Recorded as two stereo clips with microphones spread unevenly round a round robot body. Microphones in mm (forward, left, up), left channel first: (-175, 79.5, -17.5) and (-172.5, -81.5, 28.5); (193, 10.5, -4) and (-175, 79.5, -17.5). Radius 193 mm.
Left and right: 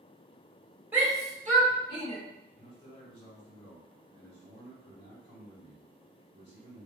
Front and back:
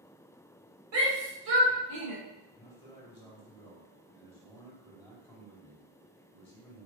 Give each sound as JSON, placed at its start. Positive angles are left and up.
{"t": 0.9, "sound": "a shout", "azimuth_deg": 180, "distance_m": 2.0}
{"t": 2.6, "sound": "a man speaking", "azimuth_deg": 65, "distance_m": 1.9}